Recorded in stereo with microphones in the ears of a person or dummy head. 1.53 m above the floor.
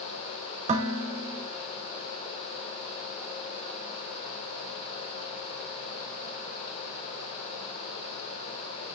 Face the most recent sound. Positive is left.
turn(degrees=-45)  # may be behind; listen again after turning